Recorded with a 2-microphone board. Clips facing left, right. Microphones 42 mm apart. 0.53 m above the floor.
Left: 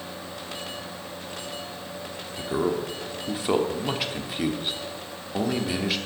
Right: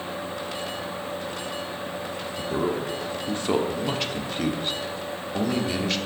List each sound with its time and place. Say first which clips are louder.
2.4 s a man speaking: left 1 dB; 5° left (ahead or behind), 1.2 m